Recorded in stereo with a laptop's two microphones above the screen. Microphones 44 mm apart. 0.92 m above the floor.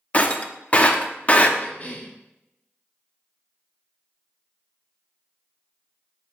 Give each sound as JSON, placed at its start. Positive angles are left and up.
{"t": 0.1, "sound": "breaking glass", "side_deg": 30, "distance_m": 0.8}
{"t": 1.6, "sound": "a cough", "side_deg": 40, "distance_m": 1.6}